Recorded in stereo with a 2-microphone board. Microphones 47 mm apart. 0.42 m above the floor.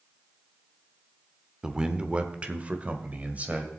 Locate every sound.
1.6 s a man speaking: 20° right (ahead or behind), 0.8 m; by 3.7 s 35° right (ahead or behind), 1.7 m